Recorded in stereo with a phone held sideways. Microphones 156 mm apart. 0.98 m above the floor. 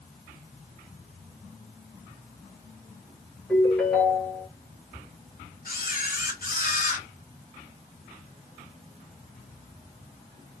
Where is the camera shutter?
65° left (ahead or behind), 1.6 m.